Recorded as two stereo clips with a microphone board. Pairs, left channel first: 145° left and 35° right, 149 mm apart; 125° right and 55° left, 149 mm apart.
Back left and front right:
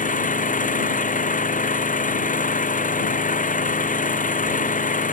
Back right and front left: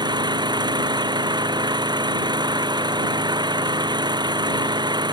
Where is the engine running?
115° left.